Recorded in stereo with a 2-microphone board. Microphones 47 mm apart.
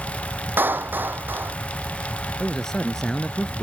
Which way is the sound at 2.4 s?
10° left (ahead or behind).